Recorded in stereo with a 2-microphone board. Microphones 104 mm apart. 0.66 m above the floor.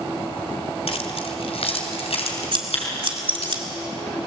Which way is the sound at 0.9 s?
70° left (ahead or behind).